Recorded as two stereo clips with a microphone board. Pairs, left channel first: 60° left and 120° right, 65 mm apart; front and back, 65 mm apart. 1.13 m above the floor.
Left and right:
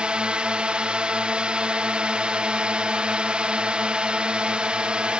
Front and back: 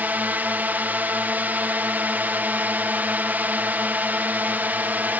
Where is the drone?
170° right.